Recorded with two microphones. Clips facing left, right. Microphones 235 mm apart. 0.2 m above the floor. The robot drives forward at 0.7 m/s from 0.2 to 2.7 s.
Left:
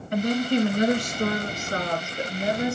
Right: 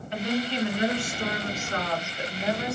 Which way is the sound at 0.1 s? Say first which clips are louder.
Left 6 dB; 50° left (ahead or behind).